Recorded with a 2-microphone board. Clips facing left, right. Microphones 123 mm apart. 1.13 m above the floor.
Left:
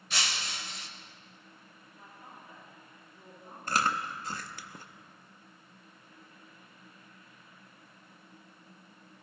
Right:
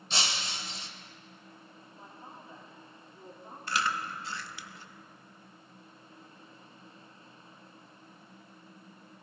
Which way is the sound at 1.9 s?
30° right (ahead or behind).